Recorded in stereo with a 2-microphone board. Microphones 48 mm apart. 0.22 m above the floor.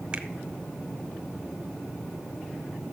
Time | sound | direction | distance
0.1 | a finger snap | 20° right (ahead or behind) | 0.8 m